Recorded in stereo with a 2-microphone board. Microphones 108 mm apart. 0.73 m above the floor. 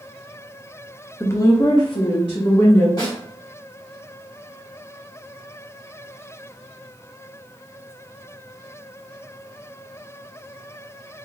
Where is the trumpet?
No trumpet in this recording.